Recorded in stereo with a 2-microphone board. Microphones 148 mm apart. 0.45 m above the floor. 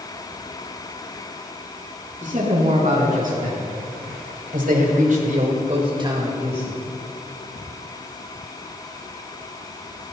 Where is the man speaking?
55° right (ahead or behind), 5.5 m; by 6.8 s 10° right (ahead or behind), 2.5 m.